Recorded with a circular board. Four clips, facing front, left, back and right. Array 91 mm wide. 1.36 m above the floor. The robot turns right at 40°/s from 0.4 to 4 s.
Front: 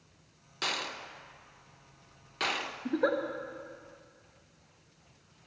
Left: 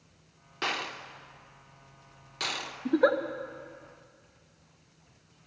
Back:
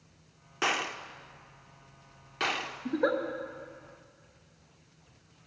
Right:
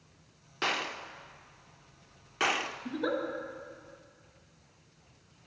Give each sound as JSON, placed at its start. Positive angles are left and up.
{"t": 0.6, "sound": "a gunshot", "azimuth_deg": 180, "distance_m": 0.5}
{"t": 2.9, "sound": "a giggle", "azimuth_deg": 85, "distance_m": 0.7}